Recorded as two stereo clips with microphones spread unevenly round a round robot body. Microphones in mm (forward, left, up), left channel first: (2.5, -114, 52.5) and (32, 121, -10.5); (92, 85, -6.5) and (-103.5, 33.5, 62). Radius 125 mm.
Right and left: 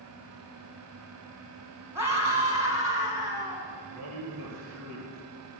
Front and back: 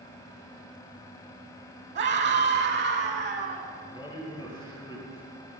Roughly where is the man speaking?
Left.